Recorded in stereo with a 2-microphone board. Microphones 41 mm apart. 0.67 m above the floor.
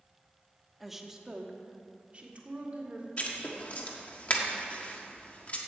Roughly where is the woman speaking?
Centre.